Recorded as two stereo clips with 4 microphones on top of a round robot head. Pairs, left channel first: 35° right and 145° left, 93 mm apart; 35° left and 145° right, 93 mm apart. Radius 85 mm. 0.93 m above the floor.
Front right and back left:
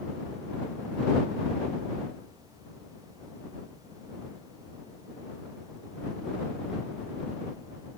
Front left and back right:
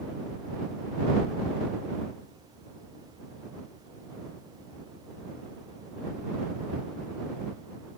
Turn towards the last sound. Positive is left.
No sound to turn to.